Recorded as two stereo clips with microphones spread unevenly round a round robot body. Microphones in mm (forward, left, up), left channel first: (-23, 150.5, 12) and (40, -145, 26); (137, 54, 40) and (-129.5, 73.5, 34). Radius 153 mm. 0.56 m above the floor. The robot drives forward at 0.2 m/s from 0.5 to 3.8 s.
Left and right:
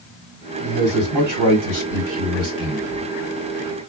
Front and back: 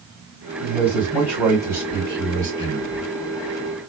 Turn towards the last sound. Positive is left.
turn(degrees=-115)